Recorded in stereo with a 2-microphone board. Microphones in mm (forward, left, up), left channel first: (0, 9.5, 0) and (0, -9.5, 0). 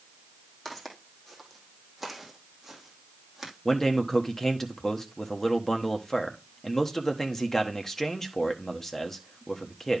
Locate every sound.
0.7 s footsteps: 15° left (ahead or behind), 2.5 m; by 3.5 s 20° right (ahead or behind), 2.5 m
3.6 s a man speaking: 20° left (ahead or behind), 1.2 m